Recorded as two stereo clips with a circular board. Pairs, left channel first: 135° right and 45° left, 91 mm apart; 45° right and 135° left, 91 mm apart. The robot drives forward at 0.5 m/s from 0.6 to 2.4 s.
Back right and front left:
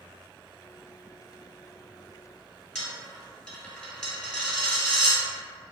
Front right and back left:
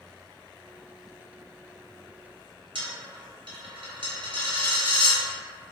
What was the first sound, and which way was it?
A dropped coin, 145° left.